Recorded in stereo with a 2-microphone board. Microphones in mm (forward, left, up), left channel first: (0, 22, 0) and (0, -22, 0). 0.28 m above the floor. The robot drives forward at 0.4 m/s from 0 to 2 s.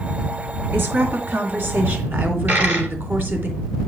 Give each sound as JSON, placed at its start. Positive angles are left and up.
{"t": 0.7, "sound": "a woman speaking", "side_deg": -60, "distance_m": 2.5}
{"t": 2.5, "sound": "a dropped coin", "side_deg": -45, "distance_m": 3.0}